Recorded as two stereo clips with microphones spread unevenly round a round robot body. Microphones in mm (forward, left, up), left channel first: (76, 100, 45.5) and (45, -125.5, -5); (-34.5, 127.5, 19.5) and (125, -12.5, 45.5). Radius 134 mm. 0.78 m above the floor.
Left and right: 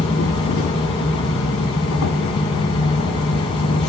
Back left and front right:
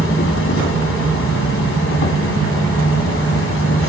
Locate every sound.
0.0 s an insect: 130° left, 1.4 m